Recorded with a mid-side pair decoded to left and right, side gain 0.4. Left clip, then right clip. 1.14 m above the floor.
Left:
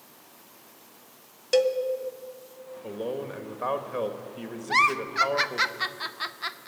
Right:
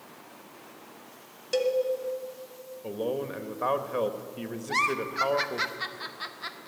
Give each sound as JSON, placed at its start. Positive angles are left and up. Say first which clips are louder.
{"t": 1.5, "sound": "a cowbell", "louder": "left 4 dB", "azimuth_deg": 45, "distance_m": 1.5}
{"t": 2.8, "sound": "a man speaking", "louder": "right 2 dB", "azimuth_deg": -15, "distance_m": 1.6}
{"t": 4.7, "sound": "a giggle", "louder": "left 5 dB", "azimuth_deg": 45, "distance_m": 0.6}